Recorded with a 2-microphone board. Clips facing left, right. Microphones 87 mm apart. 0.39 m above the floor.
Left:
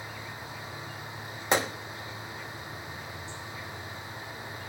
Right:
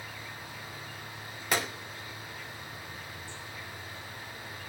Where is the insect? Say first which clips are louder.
Left 3 dB; 20° left (ahead or behind), 2.5 m.